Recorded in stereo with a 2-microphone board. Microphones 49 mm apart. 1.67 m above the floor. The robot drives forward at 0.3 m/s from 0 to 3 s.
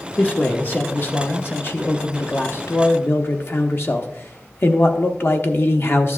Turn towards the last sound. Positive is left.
turn(degrees=55)  # may be behind; listen again after turning